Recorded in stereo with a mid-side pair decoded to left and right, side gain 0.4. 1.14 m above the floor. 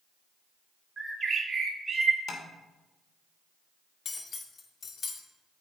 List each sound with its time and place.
1.0 s a bird: 35° right, 3 m
2.3 s tapping: 55° left, 2.5 m
4.0 s cutlery clinking: 55° left, 1.6 m